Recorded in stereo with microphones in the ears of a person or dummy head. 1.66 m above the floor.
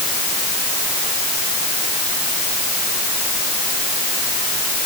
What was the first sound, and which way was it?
Only background noise.